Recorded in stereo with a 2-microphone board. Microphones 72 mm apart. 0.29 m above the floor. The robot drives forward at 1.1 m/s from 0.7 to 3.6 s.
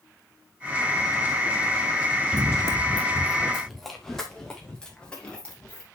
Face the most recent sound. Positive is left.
turn(degrees=20)  # may be behind; listen again after turning